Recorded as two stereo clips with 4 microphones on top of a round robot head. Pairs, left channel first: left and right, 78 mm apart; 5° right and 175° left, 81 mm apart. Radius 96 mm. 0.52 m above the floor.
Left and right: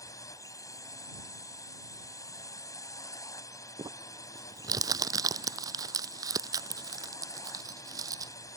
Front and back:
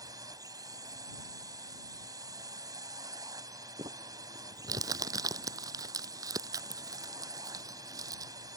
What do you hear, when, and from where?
0.0 s a drone: 135° left
3.8 s crumpling: 135° right